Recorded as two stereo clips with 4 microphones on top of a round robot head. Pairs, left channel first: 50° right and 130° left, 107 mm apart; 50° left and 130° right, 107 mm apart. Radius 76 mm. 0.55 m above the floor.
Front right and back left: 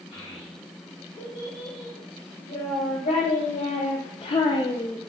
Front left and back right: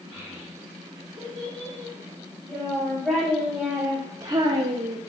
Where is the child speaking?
25° right, 3.5 m; by 5.0 s 125° right, 0.7 m.